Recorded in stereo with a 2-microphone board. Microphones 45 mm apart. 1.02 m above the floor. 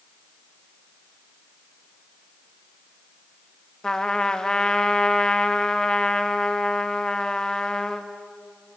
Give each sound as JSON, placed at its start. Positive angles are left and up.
{"t": 3.8, "sound": "a trumpet", "side_deg": 15, "distance_m": 0.6}